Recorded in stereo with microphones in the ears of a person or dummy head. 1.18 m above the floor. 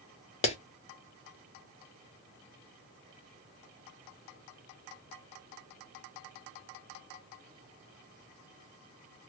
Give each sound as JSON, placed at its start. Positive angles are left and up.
{"t": 0.4, "sound": "a clap", "side_deg": 30, "distance_m": 0.7}